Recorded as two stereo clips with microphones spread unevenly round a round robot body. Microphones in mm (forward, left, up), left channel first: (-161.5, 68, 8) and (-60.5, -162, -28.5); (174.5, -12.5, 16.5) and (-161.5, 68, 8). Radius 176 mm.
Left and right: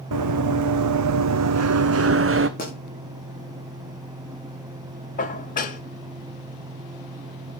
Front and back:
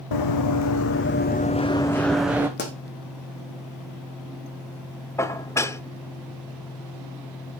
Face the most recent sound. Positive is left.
turn(degrees=65)